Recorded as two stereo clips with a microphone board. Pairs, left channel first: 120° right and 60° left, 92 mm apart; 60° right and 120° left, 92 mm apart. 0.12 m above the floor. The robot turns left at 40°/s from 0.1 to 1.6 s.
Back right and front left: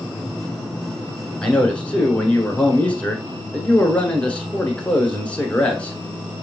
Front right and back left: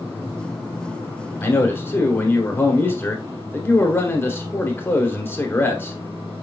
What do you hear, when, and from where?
1.4 s a man speaking: 60° right, 1.1 m; by 6.0 s 65° right, 1.1 m